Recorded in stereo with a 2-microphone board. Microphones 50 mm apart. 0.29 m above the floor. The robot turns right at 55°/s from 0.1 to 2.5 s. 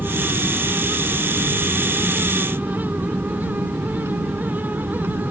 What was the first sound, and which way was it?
An aircraft, 130° left.